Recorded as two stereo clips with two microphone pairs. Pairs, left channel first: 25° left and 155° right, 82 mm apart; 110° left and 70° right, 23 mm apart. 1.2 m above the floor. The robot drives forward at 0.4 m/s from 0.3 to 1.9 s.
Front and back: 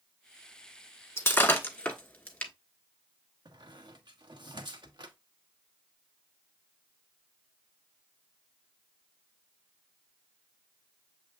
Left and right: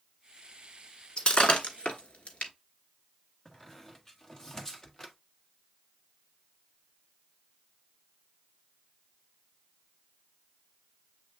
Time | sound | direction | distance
1.2 | breaking glass | 85° left | 1.3 m
3.5 | a squeak | 175° right | 1.0 m